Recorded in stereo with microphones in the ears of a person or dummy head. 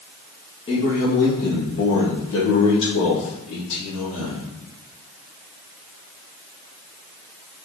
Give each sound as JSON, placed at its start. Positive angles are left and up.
{"t": 0.7, "sound": "a man speaking", "side_deg": 30, "distance_m": 0.9}